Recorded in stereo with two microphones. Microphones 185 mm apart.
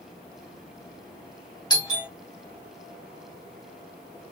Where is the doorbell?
20° left (ahead or behind), 1.5 m.